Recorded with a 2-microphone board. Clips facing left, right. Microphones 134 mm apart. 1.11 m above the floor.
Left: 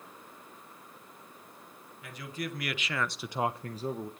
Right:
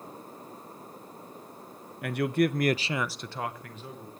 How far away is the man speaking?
About 1.2 m.